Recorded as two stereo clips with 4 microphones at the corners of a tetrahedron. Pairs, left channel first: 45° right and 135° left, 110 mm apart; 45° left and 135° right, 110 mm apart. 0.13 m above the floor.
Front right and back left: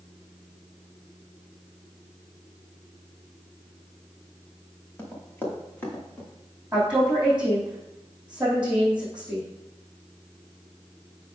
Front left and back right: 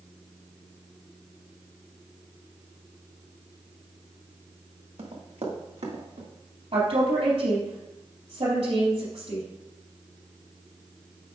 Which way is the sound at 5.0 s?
115° right.